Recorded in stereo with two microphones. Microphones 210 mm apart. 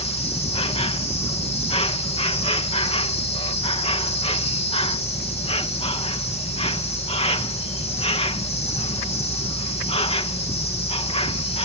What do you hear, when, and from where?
0.0 s an insect: 30° left (ahead or behind)